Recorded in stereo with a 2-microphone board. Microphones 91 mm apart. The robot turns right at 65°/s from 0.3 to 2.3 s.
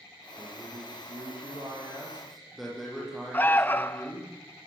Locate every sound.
0.4 s a man speaking: 125° right, 9.5 m; by 4.3 s straight ahead, 9.5 m
3.3 s an alarm: 20° left (ahead or behind), 0.7 m